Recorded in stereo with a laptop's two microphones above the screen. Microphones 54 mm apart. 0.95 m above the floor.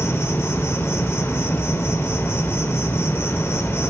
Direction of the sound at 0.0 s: 55° left (ahead or behind).